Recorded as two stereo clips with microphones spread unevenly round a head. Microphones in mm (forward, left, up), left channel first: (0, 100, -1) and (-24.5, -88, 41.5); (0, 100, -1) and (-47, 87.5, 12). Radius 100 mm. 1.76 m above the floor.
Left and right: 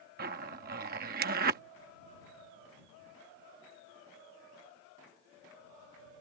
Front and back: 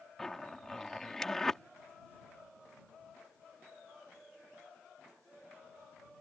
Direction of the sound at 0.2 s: 80° right.